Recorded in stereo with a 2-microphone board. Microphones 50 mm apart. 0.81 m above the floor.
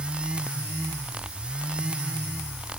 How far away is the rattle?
No rattle in this recording.